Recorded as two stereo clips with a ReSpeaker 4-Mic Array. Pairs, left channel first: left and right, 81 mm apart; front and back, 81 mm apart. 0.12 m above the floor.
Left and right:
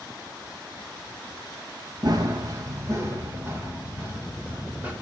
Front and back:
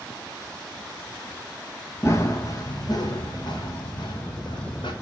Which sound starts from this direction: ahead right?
Running footsteps, at 2.0 s.